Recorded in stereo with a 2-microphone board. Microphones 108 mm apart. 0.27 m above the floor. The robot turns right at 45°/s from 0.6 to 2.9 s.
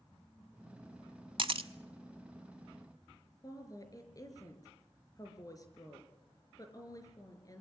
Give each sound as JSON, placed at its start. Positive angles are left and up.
{"t": 1.4, "sound": "a camera shutter", "side_deg": -50, "distance_m": 0.8}
{"t": 3.4, "sound": "a woman speaking", "side_deg": 35, "distance_m": 4.5}